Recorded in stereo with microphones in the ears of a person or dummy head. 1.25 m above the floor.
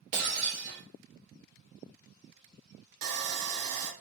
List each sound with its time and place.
0.1 s breaking glass: 40° right (ahead or behind), 1.1 m
3.0 s sawing: 70° right (ahead or behind), 0.6 m